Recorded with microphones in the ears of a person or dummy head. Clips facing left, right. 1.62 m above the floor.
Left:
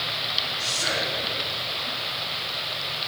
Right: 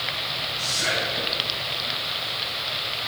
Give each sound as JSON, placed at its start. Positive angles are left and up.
{"t": 0.6, "sound": "whispering", "side_deg": -45, "distance_m": 2.5}